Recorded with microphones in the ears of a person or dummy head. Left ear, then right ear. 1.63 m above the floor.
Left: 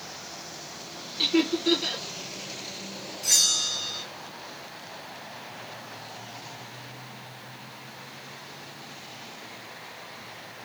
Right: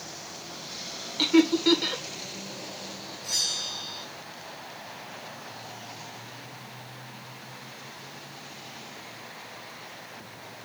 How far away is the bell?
About 0.7 m.